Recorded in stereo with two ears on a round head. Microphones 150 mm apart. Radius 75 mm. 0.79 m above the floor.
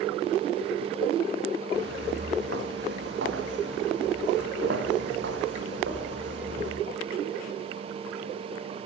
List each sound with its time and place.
1.7 s footsteps: 70° right (ahead or behind), 4.5 m; by 6.8 s 80° right, 9 m